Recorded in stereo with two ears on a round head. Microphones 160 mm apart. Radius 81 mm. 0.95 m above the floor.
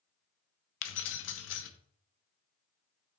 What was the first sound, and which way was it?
Keys jangling, 75° left (ahead or behind).